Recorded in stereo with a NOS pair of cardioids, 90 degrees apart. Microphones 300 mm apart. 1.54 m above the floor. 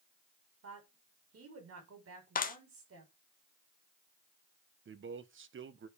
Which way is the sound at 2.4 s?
30° left.